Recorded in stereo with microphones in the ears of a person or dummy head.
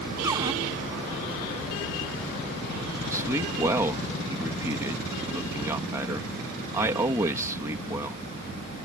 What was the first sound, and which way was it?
A cupboard door, 15° right (ahead or behind).